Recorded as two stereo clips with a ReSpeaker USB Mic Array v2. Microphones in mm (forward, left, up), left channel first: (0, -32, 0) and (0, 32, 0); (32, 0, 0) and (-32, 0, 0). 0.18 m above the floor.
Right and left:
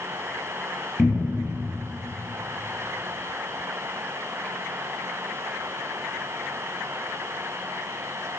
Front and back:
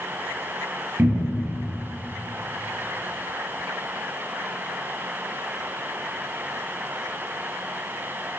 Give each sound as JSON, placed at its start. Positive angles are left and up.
{"t": 1.0, "sound": "a cupboard door", "azimuth_deg": -170, "distance_m": 0.5}